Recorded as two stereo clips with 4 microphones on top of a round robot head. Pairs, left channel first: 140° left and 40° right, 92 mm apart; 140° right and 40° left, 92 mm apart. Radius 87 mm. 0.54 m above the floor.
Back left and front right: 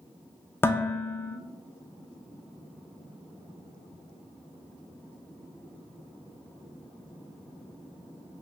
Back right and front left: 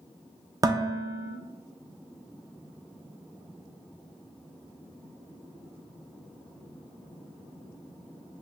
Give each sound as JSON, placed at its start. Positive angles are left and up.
{"t": 0.6, "sound": "dishes clattering", "azimuth_deg": 80, "distance_m": 0.5}